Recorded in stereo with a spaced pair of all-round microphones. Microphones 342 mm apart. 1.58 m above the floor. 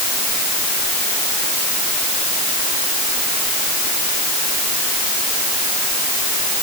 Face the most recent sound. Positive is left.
No sound to turn to.